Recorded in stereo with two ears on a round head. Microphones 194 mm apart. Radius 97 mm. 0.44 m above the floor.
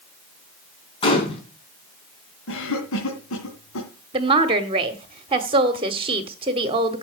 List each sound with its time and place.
1.0 s a gunshot: 25° left (ahead or behind), 5 m
2.5 s a cough: 70° left (ahead or behind), 3.5 m
4.1 s a woman speaking: 25° right (ahead or behind), 1.3 m